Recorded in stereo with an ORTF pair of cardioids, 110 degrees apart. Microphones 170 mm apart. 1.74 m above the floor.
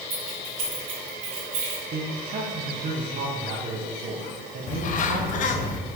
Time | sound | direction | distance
0.1 | keys jangling | 55° right | 3 m
1.9 | a man speaking | 50° right | 1.6 m
4.7 | a bird | 50° left | 0.7 m